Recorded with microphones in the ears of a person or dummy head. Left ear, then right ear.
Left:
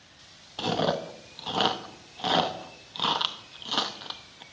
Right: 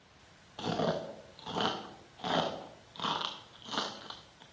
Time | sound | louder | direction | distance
0.6 | chewing | left 6 dB | 15° left (ahead or behind) | 0.5 m